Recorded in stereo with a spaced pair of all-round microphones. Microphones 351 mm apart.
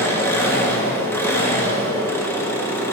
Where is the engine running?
5° left (ahead or behind), 1.2 m.